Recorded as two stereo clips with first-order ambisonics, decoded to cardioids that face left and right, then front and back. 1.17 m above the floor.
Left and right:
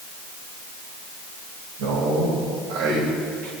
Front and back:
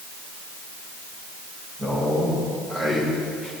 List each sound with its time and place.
1.8 s a man speaking: 100° right, 4.5 m; by 3.5 s 115° right, 5.5 m